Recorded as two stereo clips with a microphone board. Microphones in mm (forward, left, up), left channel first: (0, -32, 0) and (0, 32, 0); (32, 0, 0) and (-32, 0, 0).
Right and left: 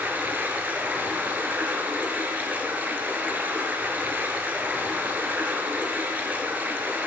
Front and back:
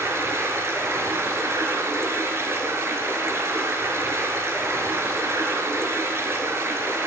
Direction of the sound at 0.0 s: 150° left.